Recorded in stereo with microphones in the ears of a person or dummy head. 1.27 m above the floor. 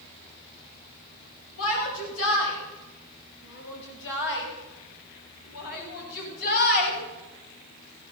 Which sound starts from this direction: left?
A shout, at 1.6 s.